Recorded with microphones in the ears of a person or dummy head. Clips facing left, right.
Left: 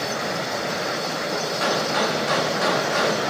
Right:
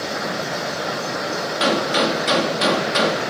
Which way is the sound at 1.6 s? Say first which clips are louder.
Right 5 dB; 40° right (ahead or behind).